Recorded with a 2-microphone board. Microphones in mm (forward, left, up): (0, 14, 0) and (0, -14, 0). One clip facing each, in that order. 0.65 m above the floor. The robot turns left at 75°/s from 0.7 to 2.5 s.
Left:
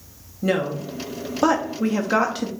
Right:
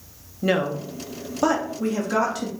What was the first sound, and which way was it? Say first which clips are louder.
A woman speaking: even; 15° right (ahead or behind).